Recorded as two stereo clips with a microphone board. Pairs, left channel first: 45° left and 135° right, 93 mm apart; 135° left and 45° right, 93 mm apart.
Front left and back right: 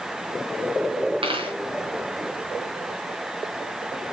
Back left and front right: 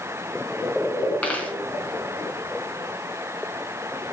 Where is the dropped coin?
150° right, 4 m.